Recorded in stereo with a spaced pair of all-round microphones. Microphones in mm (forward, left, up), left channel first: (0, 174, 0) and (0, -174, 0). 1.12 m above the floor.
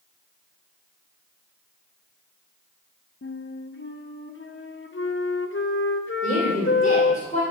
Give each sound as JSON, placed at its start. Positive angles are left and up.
{"t": 3.2, "sound": "a flute", "side_deg": 35, "distance_m": 0.6}
{"t": 6.2, "sound": "a woman speaking", "side_deg": 10, "distance_m": 2.5}